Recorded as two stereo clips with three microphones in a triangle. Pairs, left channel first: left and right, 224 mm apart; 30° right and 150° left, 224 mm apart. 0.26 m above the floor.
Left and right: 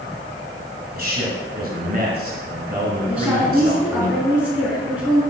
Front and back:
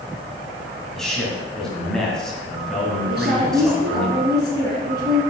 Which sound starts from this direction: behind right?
A man speaking, at 0.9 s.